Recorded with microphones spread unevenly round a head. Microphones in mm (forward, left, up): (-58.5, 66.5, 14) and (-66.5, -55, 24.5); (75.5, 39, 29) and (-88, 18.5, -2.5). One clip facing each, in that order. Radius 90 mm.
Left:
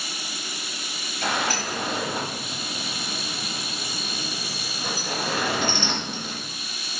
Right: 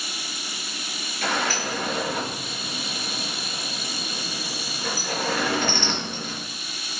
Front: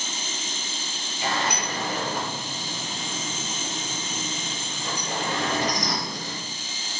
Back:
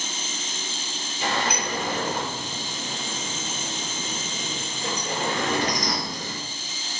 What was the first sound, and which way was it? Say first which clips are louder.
A sliding door: even, back 1 dB; 165° left.